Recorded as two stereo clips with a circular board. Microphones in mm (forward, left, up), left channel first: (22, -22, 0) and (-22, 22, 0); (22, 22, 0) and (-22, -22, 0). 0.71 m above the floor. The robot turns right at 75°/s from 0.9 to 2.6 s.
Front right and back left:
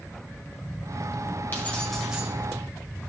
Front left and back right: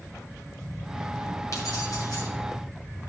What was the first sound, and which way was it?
Keys jangling, 10° left.